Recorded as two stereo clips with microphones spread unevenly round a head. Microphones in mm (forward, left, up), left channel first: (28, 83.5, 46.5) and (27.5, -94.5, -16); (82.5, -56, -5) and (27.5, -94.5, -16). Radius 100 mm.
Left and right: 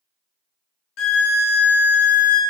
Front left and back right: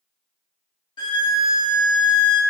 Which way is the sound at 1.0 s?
75° left.